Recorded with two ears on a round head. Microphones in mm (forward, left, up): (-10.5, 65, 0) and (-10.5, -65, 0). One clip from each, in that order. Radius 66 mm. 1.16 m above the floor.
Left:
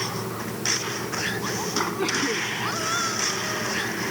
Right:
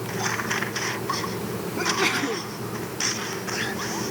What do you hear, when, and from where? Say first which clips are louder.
1.8 s a sneeze: right 3 dB; 65° right (ahead or behind)